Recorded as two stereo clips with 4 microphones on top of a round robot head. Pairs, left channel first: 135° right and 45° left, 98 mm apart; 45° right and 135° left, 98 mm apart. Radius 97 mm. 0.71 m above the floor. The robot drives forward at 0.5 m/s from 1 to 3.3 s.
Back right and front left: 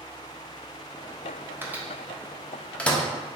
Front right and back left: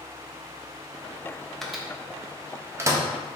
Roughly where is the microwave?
Ahead left.